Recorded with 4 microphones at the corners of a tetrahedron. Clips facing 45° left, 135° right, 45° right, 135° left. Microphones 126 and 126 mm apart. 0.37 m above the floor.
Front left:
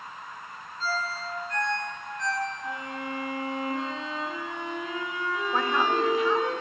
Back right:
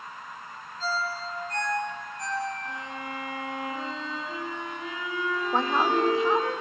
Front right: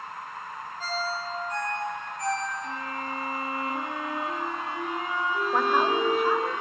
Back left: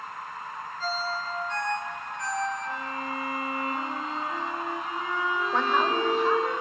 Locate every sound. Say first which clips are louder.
0.8 s a ringtone: back right 1 dB, even; 90° right, 3.5 m
2.6 s a violin: front left 2 dB, back left 1 dB; 25° right, 5 m
5.5 s a woman speaking: back right 1 dB, front right 2 dB; 120° right, 0.9 m